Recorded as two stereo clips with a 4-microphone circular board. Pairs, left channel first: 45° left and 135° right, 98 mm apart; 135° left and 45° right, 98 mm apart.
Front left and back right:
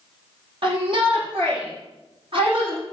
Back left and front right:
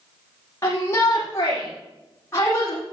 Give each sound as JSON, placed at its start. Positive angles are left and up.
{"t": 0.6, "sound": "a shout", "azimuth_deg": -165, "distance_m": 7.5}